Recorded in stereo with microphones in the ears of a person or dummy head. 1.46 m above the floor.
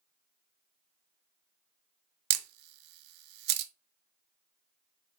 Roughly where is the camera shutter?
Right.